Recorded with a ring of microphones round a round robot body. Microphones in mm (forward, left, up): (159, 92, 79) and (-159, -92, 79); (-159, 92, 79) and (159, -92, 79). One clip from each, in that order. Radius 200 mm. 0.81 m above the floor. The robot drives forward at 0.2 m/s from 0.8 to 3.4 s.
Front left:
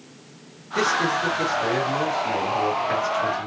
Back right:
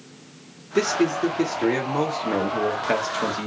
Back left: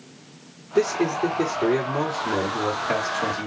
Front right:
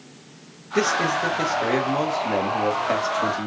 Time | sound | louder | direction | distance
0.8 | a man speaking | front left 1 dB, front right 1 dB | 75° right | 1.6 m